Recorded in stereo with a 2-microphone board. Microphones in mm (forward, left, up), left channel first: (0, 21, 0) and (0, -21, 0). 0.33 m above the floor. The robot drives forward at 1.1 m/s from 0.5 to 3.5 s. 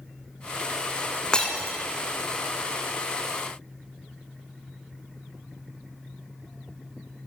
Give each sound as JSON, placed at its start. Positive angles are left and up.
{"t": 1.3, "sound": "breaking glass", "side_deg": 20, "distance_m": 2.0}